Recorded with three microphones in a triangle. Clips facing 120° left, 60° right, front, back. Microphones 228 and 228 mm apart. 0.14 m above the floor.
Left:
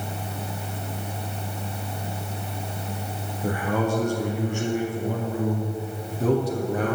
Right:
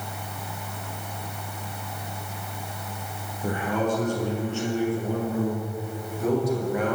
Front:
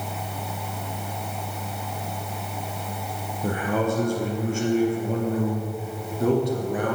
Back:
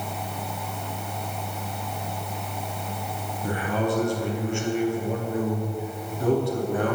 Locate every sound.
3.4 s a man speaking: 35° left, 3.5 m; by 7.0 s 75° left, 3 m